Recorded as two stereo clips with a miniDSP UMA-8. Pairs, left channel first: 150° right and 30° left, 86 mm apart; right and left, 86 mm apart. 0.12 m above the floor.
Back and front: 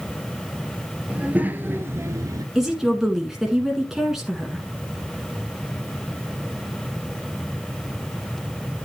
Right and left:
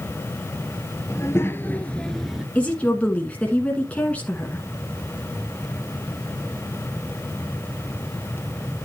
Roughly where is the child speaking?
Ahead right.